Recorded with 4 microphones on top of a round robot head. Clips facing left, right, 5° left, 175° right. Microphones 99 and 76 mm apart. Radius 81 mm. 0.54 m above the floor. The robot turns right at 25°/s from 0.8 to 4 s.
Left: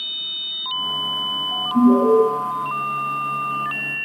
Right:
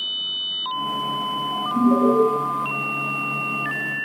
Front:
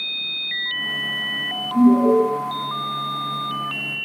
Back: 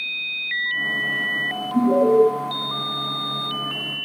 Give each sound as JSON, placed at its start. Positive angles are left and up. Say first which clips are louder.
{"t": 1.7, "sound": "an alarm", "louder": "left 4 dB, front 2 dB", "azimuth_deg": 130, "distance_m": 1.8}